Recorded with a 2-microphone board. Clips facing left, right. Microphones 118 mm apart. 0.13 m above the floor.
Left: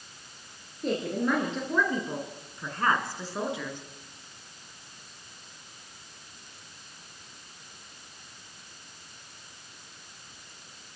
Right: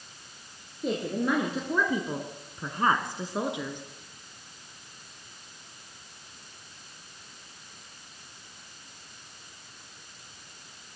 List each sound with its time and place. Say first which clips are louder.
0.8 s a woman speaking: even; 5° right (ahead or behind), 3 m; by 3.8 s 20° right (ahead or behind), 2.5 m